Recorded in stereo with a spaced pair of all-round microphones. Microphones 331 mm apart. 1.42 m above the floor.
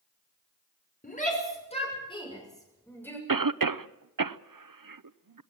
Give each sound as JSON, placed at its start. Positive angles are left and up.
{"t": 1.0, "sound": "a shout", "side_deg": 25, "distance_m": 6.0}
{"t": 3.3, "sound": "a cough", "side_deg": -75, "distance_m": 0.7}